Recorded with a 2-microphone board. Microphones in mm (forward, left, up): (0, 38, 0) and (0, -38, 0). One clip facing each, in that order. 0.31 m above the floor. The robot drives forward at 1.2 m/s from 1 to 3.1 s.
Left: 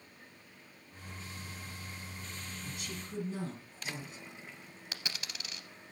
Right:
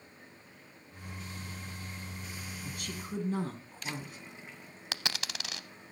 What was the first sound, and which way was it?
A woman speaking, 55° right (ahead or behind).